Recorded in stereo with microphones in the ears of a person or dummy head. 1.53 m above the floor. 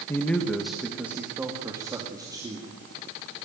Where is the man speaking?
15° left (ahead or behind), 1.4 m; by 2.7 s 15° right (ahead or behind), 3 m.